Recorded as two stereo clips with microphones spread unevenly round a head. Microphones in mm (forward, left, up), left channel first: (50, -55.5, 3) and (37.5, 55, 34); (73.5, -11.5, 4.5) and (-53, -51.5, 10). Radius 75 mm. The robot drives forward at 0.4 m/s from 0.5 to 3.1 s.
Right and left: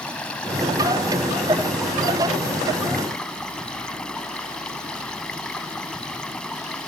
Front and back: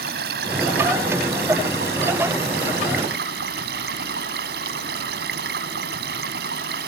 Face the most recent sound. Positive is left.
turn(degrees=-170)